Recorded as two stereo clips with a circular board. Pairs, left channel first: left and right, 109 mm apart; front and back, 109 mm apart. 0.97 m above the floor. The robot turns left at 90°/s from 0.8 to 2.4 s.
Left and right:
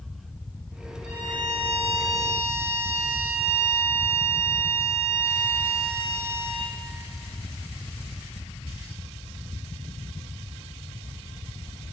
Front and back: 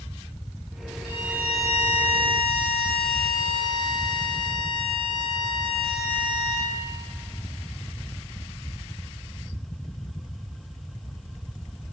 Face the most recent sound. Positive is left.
turn(degrees=140)